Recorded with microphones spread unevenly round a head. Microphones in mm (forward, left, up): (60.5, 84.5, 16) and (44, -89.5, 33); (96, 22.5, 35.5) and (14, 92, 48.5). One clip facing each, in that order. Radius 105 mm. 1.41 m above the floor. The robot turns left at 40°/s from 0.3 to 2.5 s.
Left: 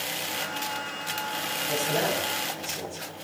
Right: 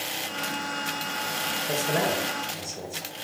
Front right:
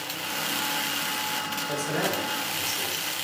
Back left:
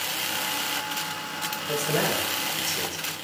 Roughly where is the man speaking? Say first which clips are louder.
Right 1 dB, back left 3 dB; behind right.